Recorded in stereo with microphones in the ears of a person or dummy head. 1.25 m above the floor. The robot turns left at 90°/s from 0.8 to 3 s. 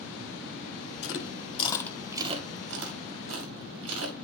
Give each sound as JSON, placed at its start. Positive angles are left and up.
{"t": 1.0, "sound": "chewing", "side_deg": 75, "distance_m": 2.0}